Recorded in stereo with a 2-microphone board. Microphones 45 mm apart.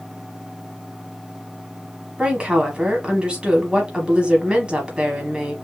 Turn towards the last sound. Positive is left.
turn(degrees=-20)  # may be behind; listen again after turning